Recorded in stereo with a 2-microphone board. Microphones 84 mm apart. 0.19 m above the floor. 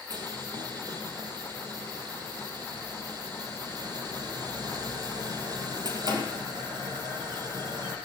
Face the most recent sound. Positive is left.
turn(degrees=-50)  # may be behind; listen again after turning